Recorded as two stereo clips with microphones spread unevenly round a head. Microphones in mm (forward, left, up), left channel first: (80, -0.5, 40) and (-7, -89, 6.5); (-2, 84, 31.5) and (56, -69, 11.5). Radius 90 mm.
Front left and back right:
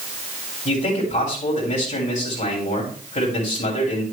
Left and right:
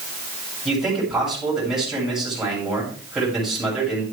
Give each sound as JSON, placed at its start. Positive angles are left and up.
{"t": 0.7, "sound": "a man speaking", "azimuth_deg": 20, "distance_m": 8.0}